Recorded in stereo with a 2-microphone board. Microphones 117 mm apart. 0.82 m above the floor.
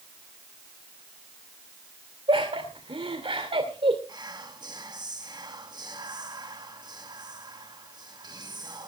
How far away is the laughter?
About 2.5 m.